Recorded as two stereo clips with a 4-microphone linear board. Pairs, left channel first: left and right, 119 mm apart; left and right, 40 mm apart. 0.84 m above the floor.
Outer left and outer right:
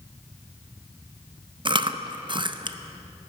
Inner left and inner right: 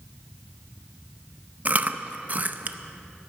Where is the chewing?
40° right (ahead or behind), 0.5 m.